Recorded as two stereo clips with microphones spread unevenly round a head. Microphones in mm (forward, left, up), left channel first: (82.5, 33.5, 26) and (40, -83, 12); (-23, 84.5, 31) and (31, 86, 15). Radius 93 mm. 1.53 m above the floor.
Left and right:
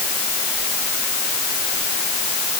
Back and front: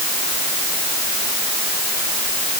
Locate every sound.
Only background noise.